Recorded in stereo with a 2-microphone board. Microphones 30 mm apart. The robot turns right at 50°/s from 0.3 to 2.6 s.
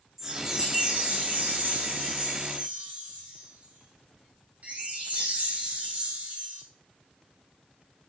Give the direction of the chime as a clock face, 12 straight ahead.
6 o'clock.